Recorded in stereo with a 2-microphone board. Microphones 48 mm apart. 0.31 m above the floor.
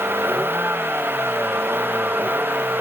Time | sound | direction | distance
0.0 | a vehicle | 50° right (ahead or behind) | ?